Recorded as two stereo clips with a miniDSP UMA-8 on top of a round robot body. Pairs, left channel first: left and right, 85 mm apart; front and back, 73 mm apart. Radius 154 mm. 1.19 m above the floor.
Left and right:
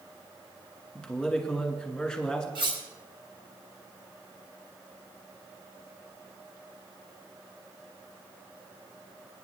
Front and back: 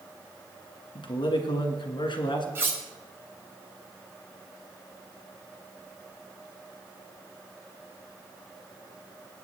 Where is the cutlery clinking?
120° right, 0.7 m.